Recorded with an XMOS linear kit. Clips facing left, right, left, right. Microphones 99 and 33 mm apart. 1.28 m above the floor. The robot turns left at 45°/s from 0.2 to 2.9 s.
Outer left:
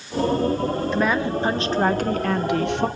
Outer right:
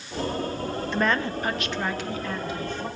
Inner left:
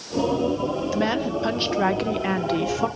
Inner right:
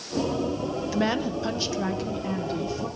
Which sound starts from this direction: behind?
A woman speaking, at 0.9 s.